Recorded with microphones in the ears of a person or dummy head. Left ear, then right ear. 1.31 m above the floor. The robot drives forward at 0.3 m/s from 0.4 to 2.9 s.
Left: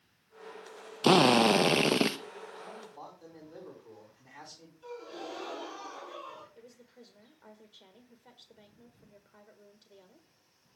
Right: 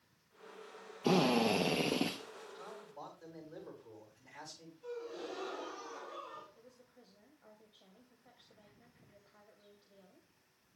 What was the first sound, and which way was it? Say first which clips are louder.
A drill: left 9 dB; 60° left (ahead or behind).